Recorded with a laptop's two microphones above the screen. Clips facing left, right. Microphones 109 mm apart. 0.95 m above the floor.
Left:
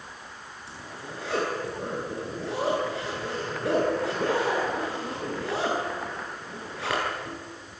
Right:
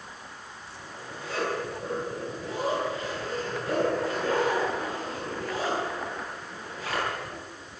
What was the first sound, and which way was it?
A zipper, 75° left (ahead or behind).